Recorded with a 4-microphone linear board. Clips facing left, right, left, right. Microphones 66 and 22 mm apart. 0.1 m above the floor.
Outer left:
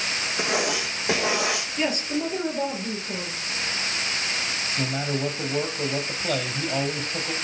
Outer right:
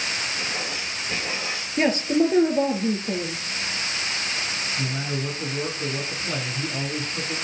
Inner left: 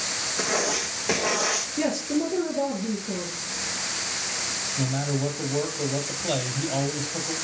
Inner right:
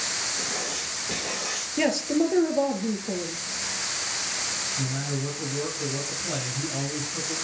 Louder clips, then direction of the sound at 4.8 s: Outer left 4 dB, inner left 3 dB; 60° left (ahead or behind).